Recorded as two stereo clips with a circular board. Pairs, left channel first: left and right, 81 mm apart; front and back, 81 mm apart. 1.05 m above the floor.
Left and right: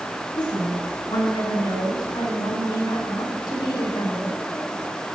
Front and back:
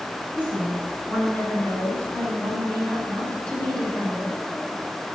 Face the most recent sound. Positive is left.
turn(degrees=80)